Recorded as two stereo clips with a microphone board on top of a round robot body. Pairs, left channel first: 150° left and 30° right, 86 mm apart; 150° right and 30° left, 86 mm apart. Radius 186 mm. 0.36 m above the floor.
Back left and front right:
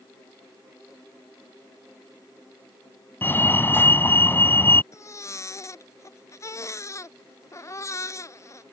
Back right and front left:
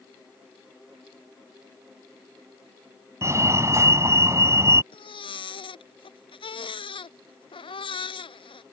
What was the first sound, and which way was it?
A fire alarm, 85° left.